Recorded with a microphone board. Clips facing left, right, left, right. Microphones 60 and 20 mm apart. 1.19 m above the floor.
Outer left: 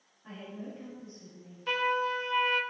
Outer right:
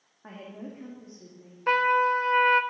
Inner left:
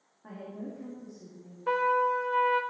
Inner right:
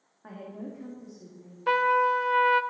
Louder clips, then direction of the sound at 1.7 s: Outer right 7 dB, inner right 3 dB; 45° right (ahead or behind).